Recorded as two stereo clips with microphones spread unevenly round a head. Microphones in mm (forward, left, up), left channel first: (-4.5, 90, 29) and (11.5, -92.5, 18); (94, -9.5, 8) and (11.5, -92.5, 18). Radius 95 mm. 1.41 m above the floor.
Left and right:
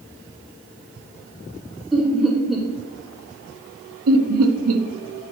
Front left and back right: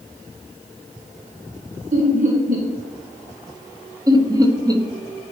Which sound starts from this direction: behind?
Laughter, at 1.9 s.